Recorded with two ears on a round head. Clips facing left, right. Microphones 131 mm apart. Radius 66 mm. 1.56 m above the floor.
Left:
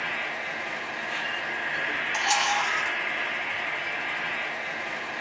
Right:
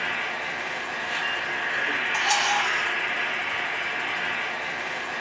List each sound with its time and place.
0.0 s an insect: 60° right (ahead or behind), 0.7 m
2.1 s a camera shutter: 5° left (ahead or behind), 0.8 m